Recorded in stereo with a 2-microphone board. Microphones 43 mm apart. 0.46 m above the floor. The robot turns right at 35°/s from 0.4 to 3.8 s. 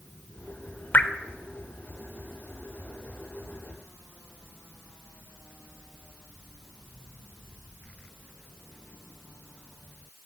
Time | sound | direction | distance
0.9 | dripping | 45° left (ahead or behind) | 0.5 m